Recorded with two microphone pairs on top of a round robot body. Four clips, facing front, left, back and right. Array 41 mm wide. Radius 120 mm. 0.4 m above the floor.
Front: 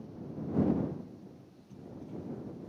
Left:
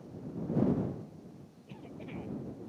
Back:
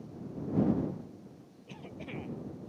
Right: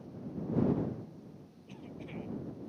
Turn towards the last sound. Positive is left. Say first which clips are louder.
# left 1 dB, back 2 dB
turn(degrees=180)